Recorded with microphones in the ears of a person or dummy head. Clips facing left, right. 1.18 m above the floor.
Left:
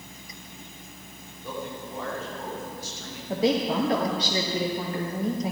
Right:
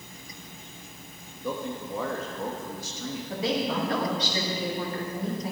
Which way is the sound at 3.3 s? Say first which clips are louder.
Left 5 dB; 30° left (ahead or behind).